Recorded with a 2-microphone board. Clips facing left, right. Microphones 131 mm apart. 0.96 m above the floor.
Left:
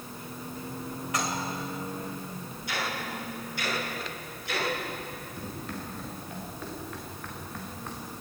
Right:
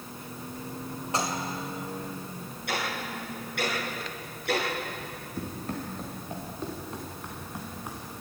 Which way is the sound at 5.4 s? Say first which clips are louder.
Right 5 dB; 45° right (ahead or behind).